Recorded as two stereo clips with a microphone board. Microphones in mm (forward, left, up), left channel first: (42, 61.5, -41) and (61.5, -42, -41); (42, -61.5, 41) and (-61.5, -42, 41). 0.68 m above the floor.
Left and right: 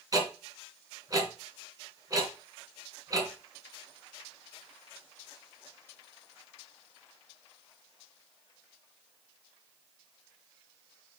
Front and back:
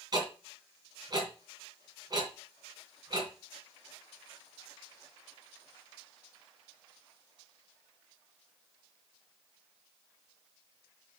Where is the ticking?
135° right, 2.5 m.